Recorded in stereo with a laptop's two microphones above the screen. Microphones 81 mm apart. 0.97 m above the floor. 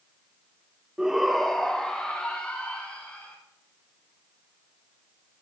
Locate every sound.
1.0 s a shout: 5° right (ahead or behind), 0.9 m; by 3.4 s 15° left (ahead or behind), 3 m